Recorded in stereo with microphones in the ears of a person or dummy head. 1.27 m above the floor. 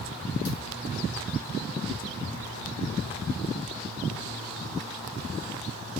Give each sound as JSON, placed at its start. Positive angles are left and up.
{"t": 0.5, "sound": "a thud", "side_deg": 65, "distance_m": 1.9}